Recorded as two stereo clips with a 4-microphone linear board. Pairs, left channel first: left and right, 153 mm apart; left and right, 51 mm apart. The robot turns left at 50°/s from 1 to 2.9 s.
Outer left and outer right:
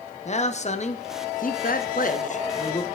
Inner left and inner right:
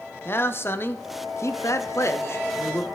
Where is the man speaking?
125° left, 0.6 m; by 2.9 s 35° left, 0.6 m.